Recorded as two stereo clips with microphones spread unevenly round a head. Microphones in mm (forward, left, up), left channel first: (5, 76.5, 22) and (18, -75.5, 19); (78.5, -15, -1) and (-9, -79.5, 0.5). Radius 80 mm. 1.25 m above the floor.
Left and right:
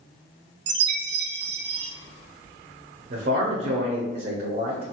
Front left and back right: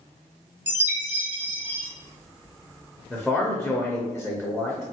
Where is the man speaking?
50° right, 0.6 m.